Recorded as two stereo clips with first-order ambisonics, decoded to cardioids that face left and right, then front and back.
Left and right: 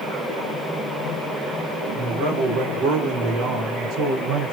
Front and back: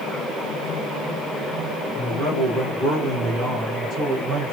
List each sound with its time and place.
1.9 s a man speaking: 105° right, 3 m; by 4.5 s 120° right, 1.5 m